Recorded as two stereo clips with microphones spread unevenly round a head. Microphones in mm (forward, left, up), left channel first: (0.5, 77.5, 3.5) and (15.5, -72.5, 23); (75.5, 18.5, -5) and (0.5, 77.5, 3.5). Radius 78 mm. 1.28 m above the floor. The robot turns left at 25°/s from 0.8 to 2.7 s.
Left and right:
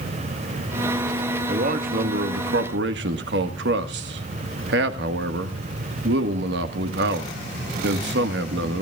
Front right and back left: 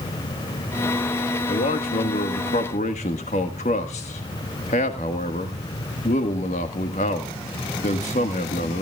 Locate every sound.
1.5 s a man speaking: 40° right, 1.6 m; by 8.8 s 70° right, 1.6 m